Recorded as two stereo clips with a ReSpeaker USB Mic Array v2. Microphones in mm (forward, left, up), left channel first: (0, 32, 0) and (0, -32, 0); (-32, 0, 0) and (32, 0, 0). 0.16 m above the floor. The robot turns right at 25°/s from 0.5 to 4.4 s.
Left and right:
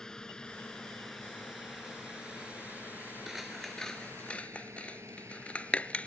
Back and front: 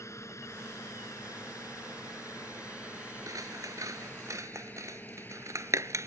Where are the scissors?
5° right; by 6.1 s 25° left.